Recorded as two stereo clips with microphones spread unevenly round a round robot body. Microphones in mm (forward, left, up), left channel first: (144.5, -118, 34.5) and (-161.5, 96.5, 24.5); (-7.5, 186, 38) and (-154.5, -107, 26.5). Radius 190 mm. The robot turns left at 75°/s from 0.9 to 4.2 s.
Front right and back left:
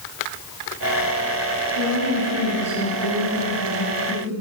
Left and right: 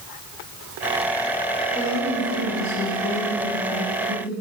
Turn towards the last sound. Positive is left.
turn(degrees=-35)